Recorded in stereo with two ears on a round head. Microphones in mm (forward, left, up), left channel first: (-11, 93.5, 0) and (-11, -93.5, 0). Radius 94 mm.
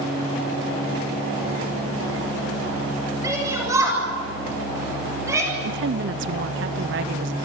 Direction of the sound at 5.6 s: 60° right (ahead or behind).